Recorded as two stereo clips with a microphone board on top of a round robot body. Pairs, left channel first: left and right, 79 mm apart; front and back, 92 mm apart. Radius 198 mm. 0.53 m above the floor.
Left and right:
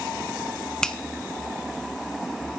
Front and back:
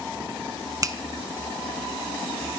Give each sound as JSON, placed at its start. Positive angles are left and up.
{"t": 0.8, "sound": "a finger snap", "azimuth_deg": 165, "distance_m": 1.2}